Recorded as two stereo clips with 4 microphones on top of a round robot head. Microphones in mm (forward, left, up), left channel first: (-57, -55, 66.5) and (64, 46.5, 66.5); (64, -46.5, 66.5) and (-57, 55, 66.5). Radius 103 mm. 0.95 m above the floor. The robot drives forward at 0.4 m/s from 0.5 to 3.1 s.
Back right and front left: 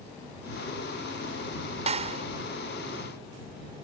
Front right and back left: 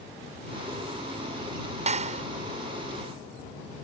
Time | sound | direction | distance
1.9 | a clap | 90° left | ?